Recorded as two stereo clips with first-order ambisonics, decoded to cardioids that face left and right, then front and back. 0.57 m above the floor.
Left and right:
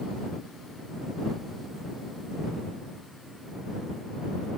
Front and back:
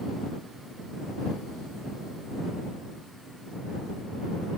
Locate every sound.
Only background noise.